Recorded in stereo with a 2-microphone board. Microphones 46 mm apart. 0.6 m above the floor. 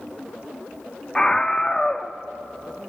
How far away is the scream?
About 0.7 m.